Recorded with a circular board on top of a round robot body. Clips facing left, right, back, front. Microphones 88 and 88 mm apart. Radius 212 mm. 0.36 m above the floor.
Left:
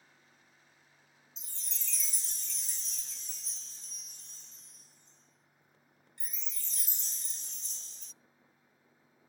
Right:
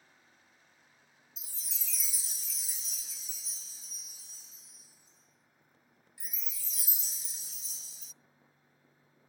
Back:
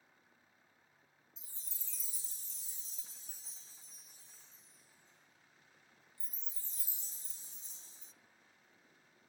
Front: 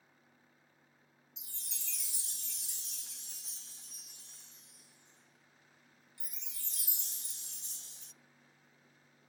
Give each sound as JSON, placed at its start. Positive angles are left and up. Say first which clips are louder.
{"t": 1.4, "sound": "a chime", "louder": "left 1 dB, front 9 dB", "azimuth_deg": -5, "distance_m": 0.7}